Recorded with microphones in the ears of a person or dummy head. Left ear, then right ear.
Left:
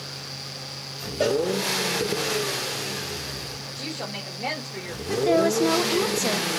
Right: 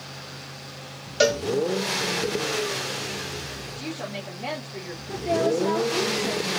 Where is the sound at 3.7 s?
10° left (ahead or behind), 2.5 m.